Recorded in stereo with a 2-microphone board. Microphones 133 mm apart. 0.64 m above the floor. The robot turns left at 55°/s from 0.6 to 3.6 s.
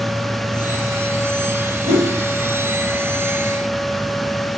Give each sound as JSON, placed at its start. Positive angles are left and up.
{"t": 1.9, "sound": "a whoosh", "side_deg": -65, "distance_m": 2.5}